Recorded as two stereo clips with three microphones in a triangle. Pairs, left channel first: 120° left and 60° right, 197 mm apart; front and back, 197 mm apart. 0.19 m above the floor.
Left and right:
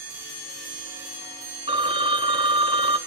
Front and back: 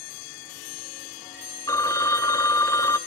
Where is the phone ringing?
55° right, 0.9 m.